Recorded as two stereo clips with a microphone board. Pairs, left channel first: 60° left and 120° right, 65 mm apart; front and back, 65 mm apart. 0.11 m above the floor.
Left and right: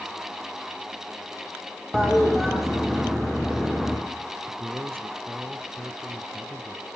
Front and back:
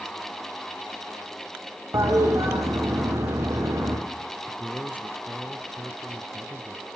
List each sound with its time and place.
1.9 s a toilet flushing: 150° left, 5 m
4.5 s a man speaking: 135° right, 1.6 m